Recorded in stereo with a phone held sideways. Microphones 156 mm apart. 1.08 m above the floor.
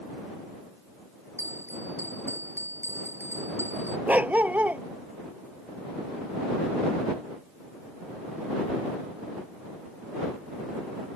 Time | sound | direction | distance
1.4 | a bell | 15° right (ahead or behind) | ?
4.1 | a dog barking | 10° right (ahead or behind) | ?